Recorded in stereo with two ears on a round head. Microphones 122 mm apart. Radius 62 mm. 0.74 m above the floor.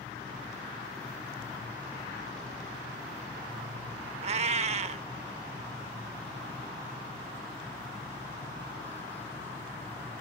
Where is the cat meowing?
50° right (ahead or behind).